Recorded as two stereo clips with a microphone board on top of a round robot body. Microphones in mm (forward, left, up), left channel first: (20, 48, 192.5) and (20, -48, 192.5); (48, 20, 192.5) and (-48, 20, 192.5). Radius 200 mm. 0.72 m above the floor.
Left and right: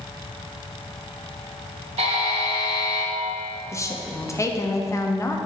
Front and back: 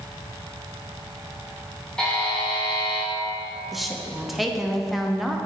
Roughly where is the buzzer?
Right.